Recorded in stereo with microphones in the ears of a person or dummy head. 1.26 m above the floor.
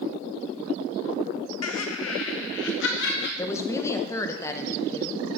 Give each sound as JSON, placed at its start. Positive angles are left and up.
{"t": 1.6, "sound": "laughter", "side_deg": 80, "distance_m": 1.4}
{"t": 3.4, "sound": "a woman speaking", "side_deg": 10, "distance_m": 1.2}